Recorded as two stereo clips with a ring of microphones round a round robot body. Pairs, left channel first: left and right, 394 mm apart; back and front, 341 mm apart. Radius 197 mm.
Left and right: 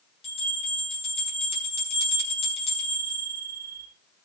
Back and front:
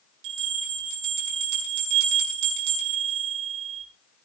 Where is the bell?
15° left, 6 m.